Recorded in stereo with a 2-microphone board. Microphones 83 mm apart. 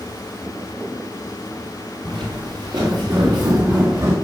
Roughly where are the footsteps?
Right.